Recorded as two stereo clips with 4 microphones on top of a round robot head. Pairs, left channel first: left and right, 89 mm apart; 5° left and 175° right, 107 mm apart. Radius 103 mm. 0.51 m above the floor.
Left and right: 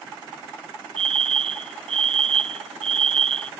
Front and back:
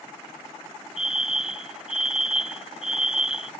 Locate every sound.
1.0 s a fire alarm: 90° right